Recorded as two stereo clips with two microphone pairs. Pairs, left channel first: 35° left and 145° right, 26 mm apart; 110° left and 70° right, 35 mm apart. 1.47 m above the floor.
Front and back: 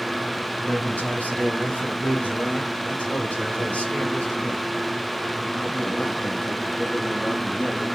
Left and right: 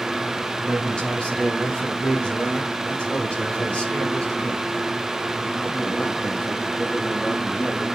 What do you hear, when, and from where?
0.7 s a man speaking: 50° left, 4 m; by 7.8 s 60° left, 9.5 m